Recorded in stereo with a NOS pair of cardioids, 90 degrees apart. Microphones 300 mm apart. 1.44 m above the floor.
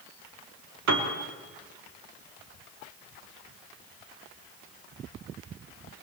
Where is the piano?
65° right, 4 m.